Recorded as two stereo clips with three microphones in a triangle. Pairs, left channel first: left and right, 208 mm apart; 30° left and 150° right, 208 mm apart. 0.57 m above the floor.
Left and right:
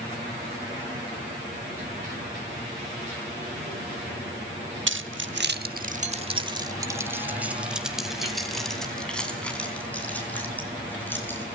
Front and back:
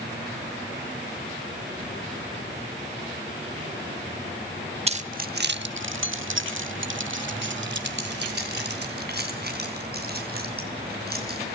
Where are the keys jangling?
90° right, 0.9 m; by 11.6 s 170° left, 4.5 m.